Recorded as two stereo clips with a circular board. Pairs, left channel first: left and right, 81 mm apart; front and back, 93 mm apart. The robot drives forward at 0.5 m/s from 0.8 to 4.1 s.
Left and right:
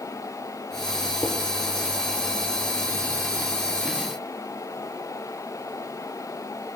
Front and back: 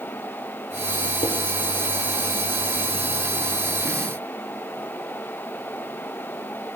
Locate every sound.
1.2 s dishes clattering: 10° left, 2.5 m